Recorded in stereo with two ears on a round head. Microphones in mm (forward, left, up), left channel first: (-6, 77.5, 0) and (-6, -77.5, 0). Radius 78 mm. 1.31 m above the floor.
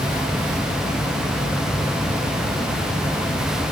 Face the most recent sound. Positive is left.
No sound to turn to.